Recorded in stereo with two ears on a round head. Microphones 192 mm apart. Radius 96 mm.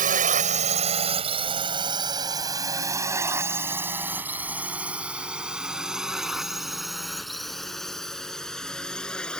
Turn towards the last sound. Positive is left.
turn(degrees=5)  # may be behind; listen again after turning